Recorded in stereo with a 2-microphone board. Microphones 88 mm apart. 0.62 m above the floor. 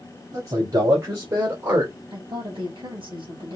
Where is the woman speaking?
70° right (ahead or behind), 4 m.